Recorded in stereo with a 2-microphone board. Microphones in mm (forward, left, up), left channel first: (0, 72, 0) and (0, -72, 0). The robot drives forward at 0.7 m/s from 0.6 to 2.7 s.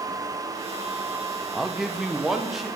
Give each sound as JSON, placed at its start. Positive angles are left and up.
{"t": 1.5, "sound": "a man speaking", "side_deg": -5, "distance_m": 0.5}